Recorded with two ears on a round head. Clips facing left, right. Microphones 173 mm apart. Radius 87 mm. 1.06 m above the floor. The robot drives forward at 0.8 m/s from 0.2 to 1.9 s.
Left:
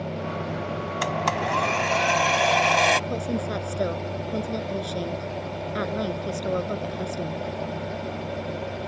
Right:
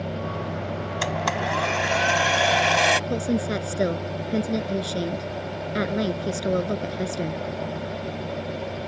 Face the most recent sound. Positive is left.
turn(degrees=-25)  # may be behind; listen again after turning